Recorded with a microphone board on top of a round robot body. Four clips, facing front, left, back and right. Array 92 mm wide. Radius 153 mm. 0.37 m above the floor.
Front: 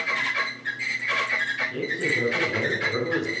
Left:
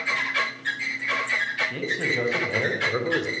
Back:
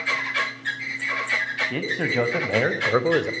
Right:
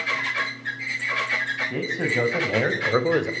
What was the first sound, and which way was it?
A man speaking, 155° right.